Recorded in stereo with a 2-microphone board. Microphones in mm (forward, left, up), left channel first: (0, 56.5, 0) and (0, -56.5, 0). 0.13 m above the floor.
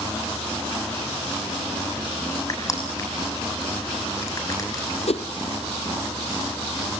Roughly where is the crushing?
Left.